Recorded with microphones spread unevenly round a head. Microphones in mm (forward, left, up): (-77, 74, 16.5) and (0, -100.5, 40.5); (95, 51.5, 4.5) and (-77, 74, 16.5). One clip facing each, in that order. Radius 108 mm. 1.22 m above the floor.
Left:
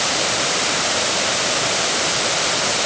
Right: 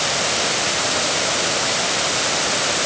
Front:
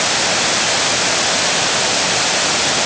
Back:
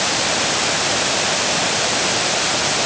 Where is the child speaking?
I don't hear a child speaking.